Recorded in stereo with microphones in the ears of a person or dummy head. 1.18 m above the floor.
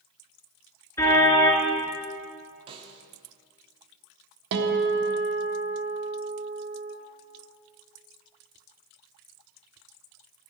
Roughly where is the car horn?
Centre.